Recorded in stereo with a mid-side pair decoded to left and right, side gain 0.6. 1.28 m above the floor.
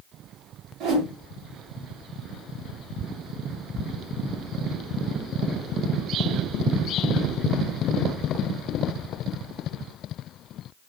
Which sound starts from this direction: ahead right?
A whoosh, at 0.8 s.